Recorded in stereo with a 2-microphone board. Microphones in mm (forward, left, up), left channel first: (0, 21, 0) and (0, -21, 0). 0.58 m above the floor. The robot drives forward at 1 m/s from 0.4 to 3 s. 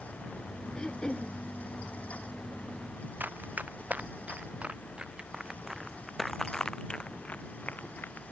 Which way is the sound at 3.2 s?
40° right (ahead or behind).